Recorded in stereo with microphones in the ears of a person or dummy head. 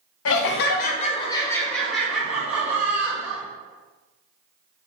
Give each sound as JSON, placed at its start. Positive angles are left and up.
{"t": 0.2, "sound": "laughter", "side_deg": 75, "distance_m": 0.6}